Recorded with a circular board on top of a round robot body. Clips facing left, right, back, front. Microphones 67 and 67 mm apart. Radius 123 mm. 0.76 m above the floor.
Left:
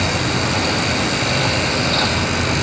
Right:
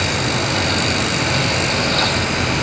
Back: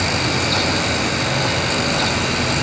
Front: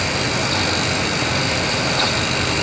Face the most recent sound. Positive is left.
No sound to turn to.